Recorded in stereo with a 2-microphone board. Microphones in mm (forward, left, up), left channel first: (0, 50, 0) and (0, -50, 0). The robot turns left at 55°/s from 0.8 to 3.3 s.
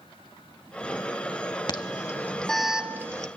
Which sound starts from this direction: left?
An alarm, at 1.7 s.